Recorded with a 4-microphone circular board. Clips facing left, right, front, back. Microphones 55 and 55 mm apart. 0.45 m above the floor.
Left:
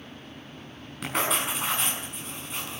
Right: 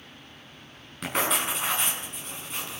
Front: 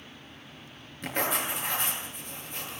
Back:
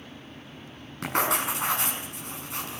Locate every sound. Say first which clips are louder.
1.0 s writing: even, back 4 dB; straight behind, 5 m